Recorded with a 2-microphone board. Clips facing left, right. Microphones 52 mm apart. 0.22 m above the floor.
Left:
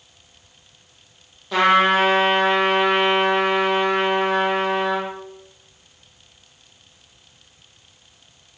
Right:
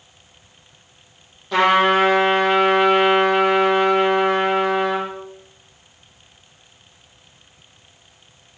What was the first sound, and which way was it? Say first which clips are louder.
A trumpet: right 1 dB; centre (ahead or behind).